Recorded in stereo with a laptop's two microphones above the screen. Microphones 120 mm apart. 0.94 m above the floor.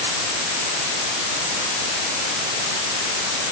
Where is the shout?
No shout in this recording.